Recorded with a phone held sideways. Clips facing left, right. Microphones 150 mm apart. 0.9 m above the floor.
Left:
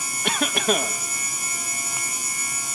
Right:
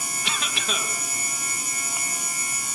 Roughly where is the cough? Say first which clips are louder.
Left 10 dB; left.